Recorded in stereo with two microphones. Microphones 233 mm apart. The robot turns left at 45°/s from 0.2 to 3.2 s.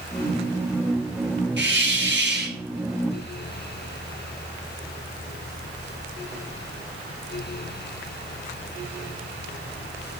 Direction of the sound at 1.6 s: 75° right.